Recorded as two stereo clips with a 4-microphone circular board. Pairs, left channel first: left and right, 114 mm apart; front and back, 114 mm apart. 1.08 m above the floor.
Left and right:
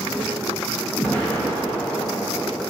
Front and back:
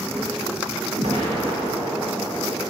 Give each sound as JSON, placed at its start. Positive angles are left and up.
{"t": 1.0, "sound": "an explosion", "azimuth_deg": 165, "distance_m": 1.6}